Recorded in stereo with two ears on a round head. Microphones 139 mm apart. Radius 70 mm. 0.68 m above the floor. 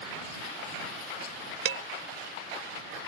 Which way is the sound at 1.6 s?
70° right (ahead or behind).